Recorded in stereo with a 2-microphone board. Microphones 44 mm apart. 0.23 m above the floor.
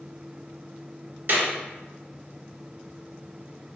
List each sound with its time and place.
1.3 s a clap: 45° right (ahead or behind), 1.5 m